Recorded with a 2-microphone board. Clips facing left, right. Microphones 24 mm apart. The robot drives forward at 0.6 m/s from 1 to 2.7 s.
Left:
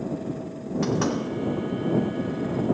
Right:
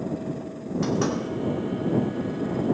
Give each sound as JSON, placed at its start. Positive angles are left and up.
{"t": 0.8, "sound": "knocking", "side_deg": 10, "distance_m": 2.5}